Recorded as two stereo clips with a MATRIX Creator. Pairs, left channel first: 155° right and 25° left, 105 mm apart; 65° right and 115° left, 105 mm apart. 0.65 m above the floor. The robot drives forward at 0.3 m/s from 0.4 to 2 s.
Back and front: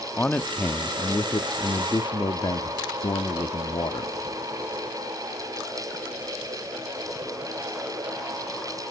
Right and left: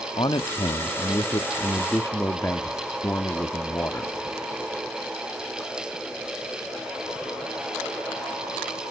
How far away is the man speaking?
About 0.8 m.